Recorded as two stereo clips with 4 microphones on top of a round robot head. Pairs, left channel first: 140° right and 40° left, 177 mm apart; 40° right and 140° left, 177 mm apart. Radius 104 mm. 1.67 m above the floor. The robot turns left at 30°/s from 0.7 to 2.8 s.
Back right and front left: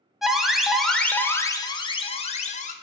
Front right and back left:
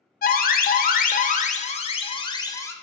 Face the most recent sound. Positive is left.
turn(degrees=-115)